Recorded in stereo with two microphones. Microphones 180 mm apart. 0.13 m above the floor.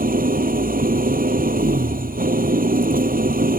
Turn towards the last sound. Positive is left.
turn(degrees=-55)  # may be behind; listen again after turning